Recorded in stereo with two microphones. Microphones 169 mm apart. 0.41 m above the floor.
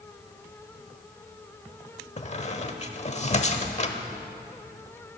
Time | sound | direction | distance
2.2 | a squeak | 40° left (ahead or behind) | 1.0 m